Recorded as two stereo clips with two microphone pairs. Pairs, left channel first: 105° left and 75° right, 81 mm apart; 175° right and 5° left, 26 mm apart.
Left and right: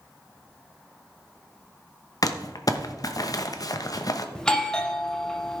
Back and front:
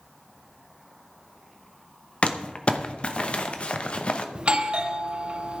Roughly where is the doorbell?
Ahead left.